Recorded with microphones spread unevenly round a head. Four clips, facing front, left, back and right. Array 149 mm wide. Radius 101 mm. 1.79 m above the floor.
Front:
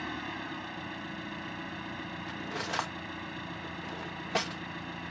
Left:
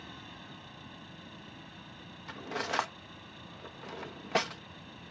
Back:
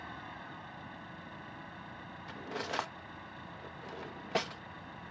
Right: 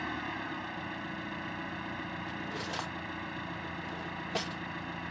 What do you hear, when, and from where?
0.0 s an engine running: 35° right
2.3 s cutlery clinking: 145° left